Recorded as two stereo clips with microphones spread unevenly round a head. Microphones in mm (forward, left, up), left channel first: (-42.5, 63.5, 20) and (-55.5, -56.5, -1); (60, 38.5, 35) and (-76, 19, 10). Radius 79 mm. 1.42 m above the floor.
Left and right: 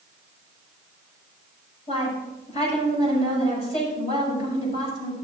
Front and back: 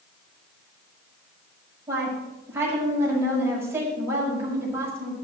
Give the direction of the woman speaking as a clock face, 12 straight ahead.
8 o'clock.